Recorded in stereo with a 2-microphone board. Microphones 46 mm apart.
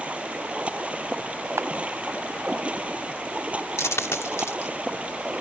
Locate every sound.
0.0 s running water: 30° right (ahead or behind)
1.6 s a camera shutter: 85° right
3.8 s a dropped coin: 80° left